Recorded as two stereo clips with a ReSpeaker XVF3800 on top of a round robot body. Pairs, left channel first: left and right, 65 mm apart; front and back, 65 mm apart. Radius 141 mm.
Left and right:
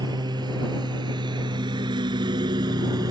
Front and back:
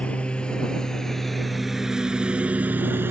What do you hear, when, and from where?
0.0 s a lawn mower: 75° right; by 3.1 s 125° right